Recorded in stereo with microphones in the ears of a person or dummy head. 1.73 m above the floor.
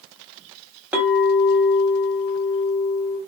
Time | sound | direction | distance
0.9 | a clink | 10° right (ahead or behind) | 1.2 m